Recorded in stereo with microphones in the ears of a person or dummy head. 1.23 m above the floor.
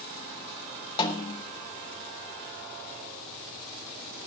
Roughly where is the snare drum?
Left.